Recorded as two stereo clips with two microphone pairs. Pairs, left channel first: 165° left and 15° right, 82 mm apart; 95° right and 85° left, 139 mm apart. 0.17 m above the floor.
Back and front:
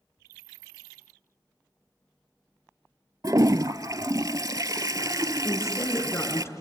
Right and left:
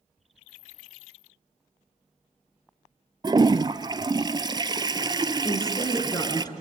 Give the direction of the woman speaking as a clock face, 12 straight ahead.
5 o'clock.